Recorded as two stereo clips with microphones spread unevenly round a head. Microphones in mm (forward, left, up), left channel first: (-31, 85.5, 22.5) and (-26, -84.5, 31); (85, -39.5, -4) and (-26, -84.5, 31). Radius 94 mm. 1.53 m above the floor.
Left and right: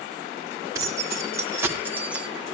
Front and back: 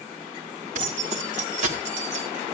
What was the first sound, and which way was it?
Keys jangling, 160° right.